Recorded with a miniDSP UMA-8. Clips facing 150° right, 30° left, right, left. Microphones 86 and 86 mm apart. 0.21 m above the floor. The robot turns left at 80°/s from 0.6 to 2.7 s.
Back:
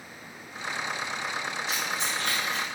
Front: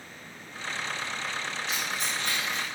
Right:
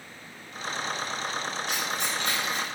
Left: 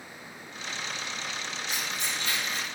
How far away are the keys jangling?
About 1.9 m.